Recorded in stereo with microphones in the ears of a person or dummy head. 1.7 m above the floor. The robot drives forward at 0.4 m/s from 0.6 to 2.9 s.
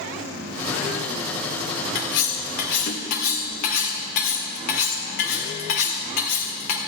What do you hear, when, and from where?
1.9 s cutlery clinking: 60° left (ahead or behind), 1.5 m; by 6.8 s 55° left (ahead or behind), 1.6 m